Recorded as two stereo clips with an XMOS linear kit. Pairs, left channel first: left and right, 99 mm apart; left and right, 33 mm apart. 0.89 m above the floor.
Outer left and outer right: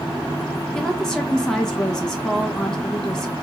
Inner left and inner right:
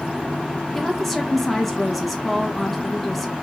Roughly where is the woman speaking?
Centre.